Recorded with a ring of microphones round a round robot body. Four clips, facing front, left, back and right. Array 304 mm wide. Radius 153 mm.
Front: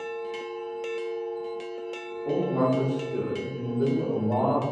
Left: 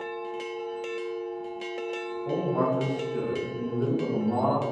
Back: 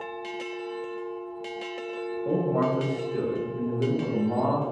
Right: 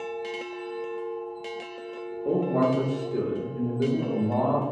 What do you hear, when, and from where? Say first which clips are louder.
2.2 s a man speaking: right 3 dB, front 1 dB; 100° right, 1.6 m; by 4.6 s 30° right, 4 m